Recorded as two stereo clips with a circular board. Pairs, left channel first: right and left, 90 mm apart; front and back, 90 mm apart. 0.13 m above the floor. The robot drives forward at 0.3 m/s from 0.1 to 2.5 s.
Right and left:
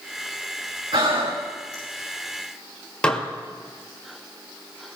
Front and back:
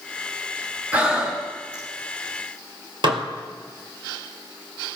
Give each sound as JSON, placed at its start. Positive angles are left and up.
{"t": 0.9, "sound": "breathing", "azimuth_deg": 110, "distance_m": 3.5}
{"t": 3.0, "sound": "dishes clattering", "azimuth_deg": -165, "distance_m": 1.8}